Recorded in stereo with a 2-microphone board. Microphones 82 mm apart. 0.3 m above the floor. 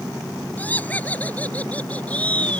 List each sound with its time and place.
0.6 s laughter: 20° left (ahead or behind); by 2.6 s 15° left (ahead or behind)